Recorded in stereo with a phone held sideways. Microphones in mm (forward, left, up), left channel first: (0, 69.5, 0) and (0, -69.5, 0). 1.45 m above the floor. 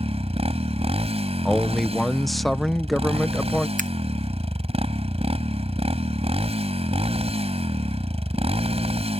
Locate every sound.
0.0 s a motorcycle: 50° right (ahead or behind)
1.4 s a man speaking: centre (ahead or behind)
3.8 s scissors: 75° right (ahead or behind)